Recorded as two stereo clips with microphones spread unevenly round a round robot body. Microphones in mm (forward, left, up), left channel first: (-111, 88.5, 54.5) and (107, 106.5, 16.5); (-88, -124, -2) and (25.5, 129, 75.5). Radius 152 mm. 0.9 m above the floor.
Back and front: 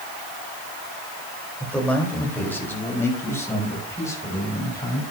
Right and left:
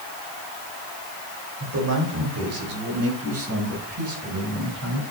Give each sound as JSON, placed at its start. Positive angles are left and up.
{"t": 1.6, "sound": "a man speaking", "azimuth_deg": 100, "distance_m": 4.0}